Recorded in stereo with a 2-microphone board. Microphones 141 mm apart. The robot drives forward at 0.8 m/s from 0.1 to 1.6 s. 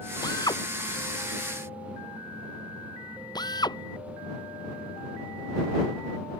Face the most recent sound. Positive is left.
turn(degrees=30)  # may be behind; listen again after turning